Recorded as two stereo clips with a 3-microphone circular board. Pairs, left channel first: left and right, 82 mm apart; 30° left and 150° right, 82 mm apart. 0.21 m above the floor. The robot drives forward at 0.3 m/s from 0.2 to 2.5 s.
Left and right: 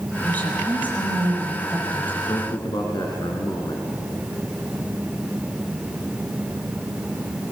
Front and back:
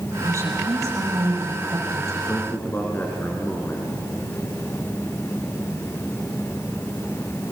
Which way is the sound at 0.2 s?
160° left.